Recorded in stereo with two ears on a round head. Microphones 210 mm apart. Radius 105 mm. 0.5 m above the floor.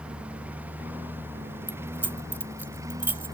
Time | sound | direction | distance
0.0 | a lawn mower | 5° right (ahead or behind) | ?
1.7 | keys jangling | 10° right (ahead or behind) | ?